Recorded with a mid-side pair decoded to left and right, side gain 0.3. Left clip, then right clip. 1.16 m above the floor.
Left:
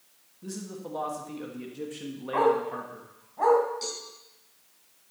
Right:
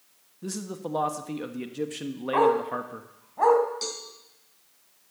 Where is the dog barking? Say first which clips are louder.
Right 2 dB; 45° right, 3 m.